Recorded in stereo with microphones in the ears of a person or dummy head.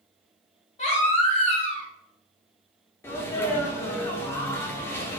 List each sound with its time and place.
0.8 s a baby crying: 40° left (ahead or behind), 2.5 m
3.0 s a sneeze: 15° left (ahead or behind), 0.6 m